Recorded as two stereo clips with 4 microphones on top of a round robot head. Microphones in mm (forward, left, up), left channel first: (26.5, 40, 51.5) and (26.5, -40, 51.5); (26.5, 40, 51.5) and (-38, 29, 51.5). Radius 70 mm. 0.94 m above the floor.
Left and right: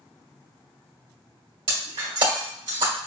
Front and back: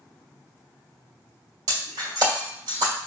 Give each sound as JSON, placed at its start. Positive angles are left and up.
{"t": 1.7, "sound": "breaking glass", "azimuth_deg": -120, "distance_m": 2.0}